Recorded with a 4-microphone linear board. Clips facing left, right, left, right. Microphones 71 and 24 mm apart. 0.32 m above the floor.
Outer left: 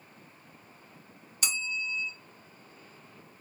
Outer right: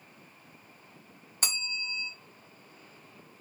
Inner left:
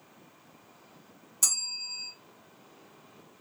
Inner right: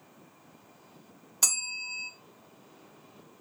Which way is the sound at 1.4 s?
40° right (ahead or behind).